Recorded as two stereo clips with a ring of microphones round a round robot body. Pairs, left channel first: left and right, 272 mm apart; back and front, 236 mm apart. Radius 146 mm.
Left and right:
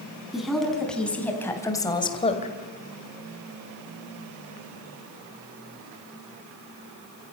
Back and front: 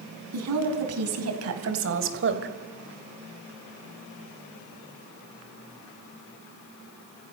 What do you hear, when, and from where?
0.3 s a woman speaking: straight ahead, 5 m; by 2.5 s 30° left, 2.5 m